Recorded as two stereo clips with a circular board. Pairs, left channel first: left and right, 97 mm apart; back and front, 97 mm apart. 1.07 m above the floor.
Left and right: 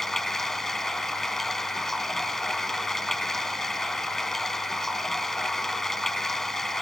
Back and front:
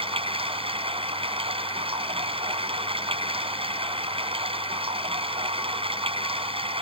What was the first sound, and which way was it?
Running water, 5° left.